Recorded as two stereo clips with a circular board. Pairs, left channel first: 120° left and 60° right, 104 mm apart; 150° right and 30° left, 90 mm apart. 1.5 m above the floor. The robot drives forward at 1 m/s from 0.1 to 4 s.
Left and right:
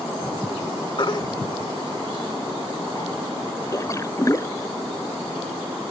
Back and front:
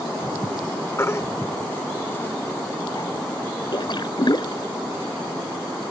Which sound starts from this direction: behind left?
A baby crying, at 1.0 s.